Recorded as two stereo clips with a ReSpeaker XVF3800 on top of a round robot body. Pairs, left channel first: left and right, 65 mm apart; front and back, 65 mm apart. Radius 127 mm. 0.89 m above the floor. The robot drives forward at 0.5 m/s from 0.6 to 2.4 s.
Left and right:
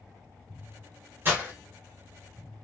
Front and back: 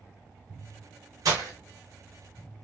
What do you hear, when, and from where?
1.2 s breaking glass: 155° right, 1.3 m